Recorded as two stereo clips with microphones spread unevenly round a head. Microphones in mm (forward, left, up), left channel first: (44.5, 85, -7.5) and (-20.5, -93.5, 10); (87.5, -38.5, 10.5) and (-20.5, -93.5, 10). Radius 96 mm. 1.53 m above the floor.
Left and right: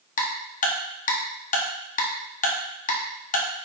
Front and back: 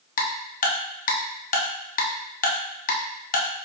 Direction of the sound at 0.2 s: 15° left.